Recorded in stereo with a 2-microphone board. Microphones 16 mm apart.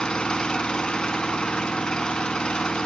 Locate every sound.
0.0 s an engine running: 55° left (ahead or behind), 0.8 m